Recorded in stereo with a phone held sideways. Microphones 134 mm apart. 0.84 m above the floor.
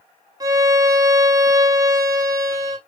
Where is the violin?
25° right (ahead or behind), 0.8 m.